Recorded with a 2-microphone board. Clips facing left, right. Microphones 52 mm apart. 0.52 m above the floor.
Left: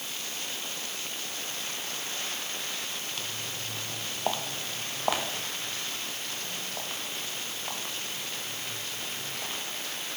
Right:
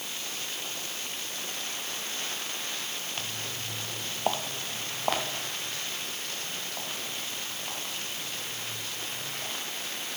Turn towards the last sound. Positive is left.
turn(degrees=10)  # may be behind; listen again after turning